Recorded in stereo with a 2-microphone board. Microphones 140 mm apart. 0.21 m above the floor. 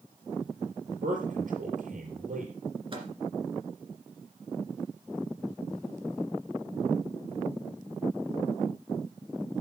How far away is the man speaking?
About 5 m.